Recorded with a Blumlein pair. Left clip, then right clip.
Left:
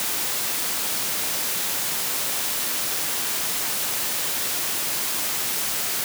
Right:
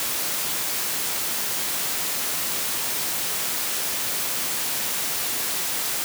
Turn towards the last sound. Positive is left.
No sound to turn to.